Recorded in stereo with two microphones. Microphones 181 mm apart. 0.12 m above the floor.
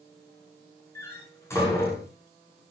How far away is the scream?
I don't hear a scream.